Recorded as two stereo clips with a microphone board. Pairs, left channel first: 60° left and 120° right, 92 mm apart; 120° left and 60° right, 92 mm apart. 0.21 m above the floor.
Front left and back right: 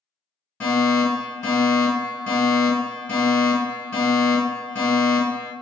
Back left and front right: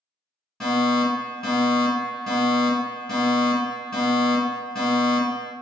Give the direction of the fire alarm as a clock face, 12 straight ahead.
10 o'clock.